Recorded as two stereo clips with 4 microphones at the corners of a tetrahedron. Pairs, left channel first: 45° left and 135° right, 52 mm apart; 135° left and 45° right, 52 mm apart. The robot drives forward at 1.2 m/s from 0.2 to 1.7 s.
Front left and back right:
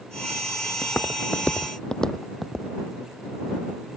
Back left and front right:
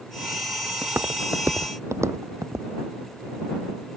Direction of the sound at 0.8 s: 5° left.